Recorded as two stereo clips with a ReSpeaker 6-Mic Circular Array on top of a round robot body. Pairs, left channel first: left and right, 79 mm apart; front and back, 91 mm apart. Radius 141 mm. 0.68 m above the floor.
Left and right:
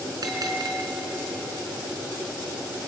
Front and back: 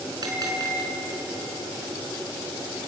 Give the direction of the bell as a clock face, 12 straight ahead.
4 o'clock.